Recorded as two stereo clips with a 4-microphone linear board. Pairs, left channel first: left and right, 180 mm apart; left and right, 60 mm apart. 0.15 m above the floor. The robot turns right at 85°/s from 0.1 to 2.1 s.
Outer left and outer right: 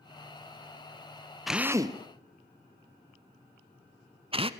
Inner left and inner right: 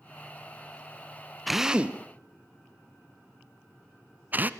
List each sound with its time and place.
1.5 s a drill: centre (ahead or behind), 0.8 m; by 4.5 s 30° right (ahead or behind), 0.8 m